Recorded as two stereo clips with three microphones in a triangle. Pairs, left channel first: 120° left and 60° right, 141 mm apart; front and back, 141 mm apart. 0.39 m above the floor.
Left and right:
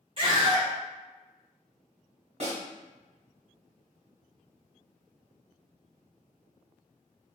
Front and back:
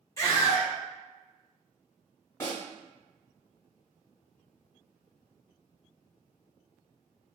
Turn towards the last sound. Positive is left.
turn(degrees=-65)